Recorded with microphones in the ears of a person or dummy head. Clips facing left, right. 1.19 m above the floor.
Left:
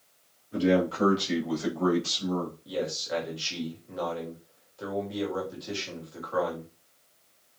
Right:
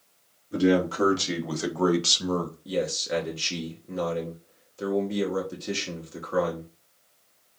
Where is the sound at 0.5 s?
50° right (ahead or behind), 1.8 m; by 2.5 s 80° right, 1.2 m.